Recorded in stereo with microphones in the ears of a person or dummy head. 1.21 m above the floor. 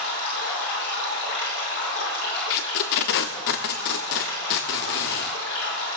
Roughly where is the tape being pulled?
Left.